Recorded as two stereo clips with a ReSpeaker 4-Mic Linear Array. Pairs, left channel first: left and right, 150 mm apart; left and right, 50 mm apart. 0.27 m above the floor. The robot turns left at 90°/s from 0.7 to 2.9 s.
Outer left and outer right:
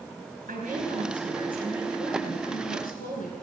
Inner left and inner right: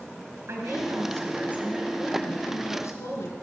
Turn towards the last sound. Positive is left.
turn(degrees=95)